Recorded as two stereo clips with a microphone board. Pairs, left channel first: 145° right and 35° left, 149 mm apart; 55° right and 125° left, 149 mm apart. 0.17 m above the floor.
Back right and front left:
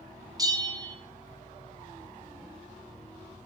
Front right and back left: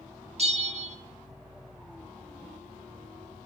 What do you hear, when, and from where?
0.4 s a bell: 95° left, 0.6 m